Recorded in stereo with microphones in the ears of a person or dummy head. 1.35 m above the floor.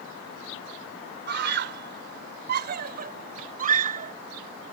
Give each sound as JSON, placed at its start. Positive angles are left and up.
{"t": 1.3, "sound": "a scream", "side_deg": -55}